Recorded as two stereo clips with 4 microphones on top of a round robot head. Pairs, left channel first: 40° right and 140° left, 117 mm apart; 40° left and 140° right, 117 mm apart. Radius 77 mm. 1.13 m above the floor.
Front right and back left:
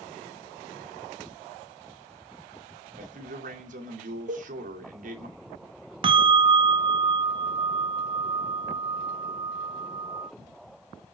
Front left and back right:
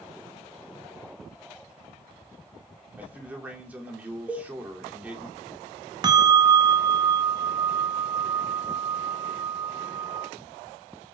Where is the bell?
175° left, 0.5 m.